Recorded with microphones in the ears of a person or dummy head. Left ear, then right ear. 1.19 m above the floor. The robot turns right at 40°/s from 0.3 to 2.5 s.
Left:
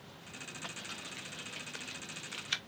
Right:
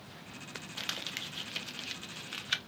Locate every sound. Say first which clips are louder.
0.8 s crumpling: right 6 dB; 45° right (ahead or behind), 0.8 m; by 2.6 s centre (ahead or behind), 0.8 m